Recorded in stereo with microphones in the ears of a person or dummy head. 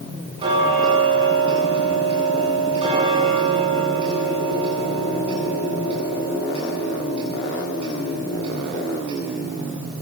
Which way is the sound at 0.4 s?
30° right (ahead or behind).